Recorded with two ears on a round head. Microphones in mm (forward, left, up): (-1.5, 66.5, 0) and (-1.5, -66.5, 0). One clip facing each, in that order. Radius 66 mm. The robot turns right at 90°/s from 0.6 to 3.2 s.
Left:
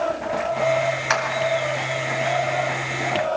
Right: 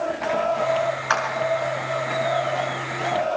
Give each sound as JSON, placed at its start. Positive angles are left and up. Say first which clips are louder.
{"t": 1.1, "sound": "a clap", "louder": "even", "side_deg": 15, "distance_m": 5.0}